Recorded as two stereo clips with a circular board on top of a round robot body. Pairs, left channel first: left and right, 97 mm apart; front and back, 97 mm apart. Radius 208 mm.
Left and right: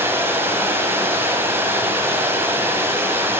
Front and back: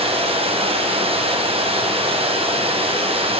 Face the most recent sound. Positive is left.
turn(degrees=-160)